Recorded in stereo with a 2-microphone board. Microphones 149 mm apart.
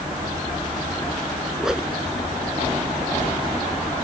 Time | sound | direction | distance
1.6 | a whoosh | 5° right (ahead or behind) | ?